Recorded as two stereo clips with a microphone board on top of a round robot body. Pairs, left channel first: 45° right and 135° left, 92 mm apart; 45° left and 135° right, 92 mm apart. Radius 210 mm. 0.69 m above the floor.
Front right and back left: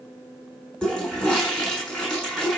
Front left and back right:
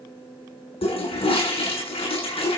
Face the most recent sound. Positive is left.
turn(degrees=35)